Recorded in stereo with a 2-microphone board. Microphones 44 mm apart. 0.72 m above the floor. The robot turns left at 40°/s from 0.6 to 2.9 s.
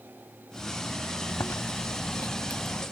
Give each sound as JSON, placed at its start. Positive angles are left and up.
{"t": 1.3, "sound": "chewing", "azimuth_deg": 100}